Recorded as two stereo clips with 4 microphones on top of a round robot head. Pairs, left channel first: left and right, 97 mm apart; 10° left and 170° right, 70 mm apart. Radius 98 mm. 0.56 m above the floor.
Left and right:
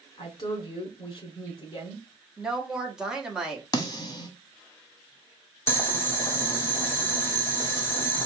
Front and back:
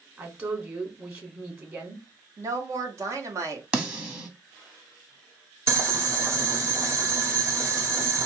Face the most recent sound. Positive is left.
turn(degrees=145)